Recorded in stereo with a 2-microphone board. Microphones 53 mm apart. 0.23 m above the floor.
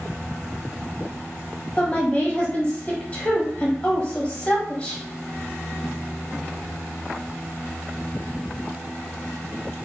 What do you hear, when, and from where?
1.8 s a woman speaking: 25° left (ahead or behind), 1.0 m